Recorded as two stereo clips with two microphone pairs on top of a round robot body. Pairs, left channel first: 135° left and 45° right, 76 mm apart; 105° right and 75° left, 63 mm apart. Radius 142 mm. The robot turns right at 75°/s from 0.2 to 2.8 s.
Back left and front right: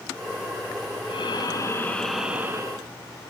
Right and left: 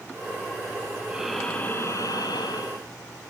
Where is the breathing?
145° left, 2.5 m; by 2.8 s 85° right, 2.5 m.